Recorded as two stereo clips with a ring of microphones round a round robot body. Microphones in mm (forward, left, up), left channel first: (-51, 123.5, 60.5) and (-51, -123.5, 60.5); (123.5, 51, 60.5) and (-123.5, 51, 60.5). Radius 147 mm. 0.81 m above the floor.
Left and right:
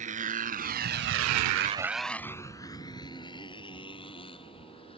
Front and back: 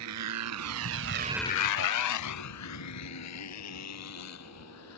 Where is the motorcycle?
150° right; by 5.0 s 20° left.